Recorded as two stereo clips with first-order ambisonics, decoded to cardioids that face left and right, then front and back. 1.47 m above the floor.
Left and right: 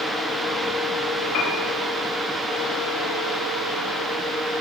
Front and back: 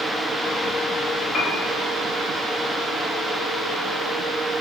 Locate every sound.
1.3 s a piano: 60° left, 3.5 m